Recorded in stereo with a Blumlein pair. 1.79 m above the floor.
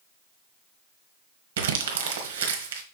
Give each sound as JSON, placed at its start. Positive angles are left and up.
{"t": 1.6, "sound": "crumpling", "azimuth_deg": -60, "distance_m": 1.3}